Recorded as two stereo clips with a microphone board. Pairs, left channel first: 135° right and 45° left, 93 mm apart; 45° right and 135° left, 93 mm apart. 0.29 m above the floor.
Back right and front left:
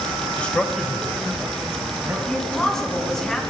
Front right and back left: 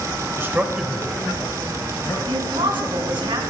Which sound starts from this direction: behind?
A man speaking, at 0.4 s.